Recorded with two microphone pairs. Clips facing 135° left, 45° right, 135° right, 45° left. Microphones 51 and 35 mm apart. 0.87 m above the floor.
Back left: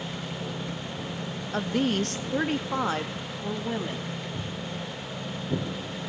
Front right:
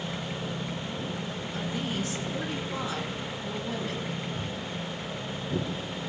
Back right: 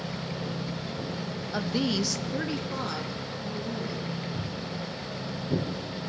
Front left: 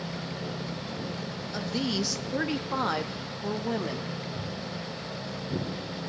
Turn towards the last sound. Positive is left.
turn(degrees=175)